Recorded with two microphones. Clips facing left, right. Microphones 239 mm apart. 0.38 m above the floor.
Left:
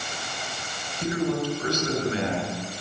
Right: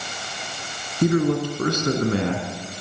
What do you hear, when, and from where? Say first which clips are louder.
1.0 s a man speaking: right 6 dB; 60° right (ahead or behind), 4.5 m